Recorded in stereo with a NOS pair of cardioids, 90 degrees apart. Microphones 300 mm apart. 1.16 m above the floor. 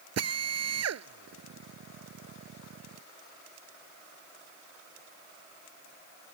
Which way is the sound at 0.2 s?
55° right.